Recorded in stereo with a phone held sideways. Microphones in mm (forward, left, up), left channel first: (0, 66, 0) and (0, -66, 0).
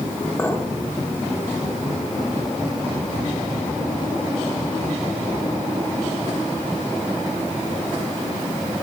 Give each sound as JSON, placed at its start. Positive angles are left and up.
{"t": 0.4, "sound": "a clink", "side_deg": 15, "distance_m": 2.5}